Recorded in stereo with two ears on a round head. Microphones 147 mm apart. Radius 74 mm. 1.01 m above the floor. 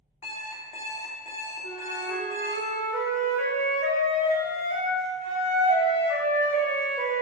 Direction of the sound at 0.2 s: 40° left (ahead or behind).